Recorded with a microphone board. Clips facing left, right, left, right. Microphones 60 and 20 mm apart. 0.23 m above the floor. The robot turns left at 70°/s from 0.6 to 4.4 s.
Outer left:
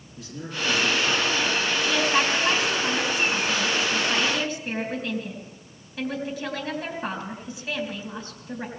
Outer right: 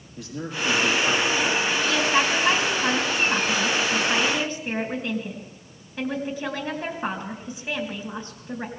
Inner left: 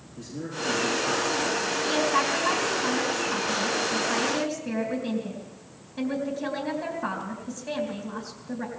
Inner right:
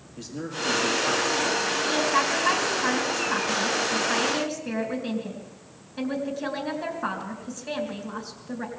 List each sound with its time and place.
0.2 s a man speaking: 115° right, 6 m; by 1.6 s 175° left, 6 m
1.9 s a woman speaking: 20° left (ahead or behind), 3.5 m; by 8.7 s 20° right (ahead or behind), 3.5 m